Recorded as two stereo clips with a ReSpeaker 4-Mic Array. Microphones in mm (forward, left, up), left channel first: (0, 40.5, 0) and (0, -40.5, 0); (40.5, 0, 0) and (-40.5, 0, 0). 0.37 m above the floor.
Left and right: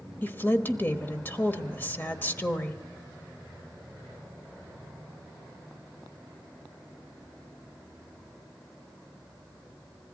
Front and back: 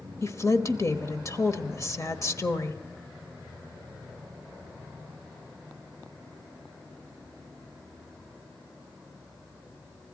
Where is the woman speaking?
35° left, 1.2 m.